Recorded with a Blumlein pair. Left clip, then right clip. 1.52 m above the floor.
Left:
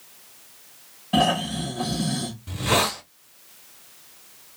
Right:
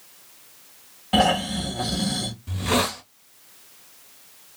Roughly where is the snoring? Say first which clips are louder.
Right 1 dB; ahead right.